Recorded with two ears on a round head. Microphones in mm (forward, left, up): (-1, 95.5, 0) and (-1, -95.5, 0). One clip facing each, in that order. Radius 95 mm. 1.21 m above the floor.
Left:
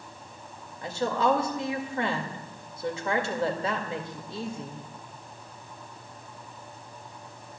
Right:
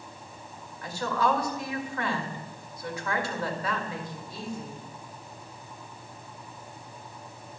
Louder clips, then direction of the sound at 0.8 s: Left 2 dB; 20° left (ahead or behind).